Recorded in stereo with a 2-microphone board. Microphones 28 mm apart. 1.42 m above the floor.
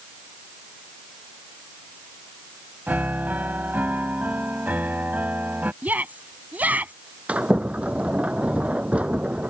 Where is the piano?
80° right.